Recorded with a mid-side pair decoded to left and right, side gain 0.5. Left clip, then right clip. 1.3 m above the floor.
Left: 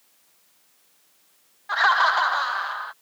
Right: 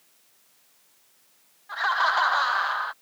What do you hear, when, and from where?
1.7 s laughter: 60° left; by 2.9 s 25° right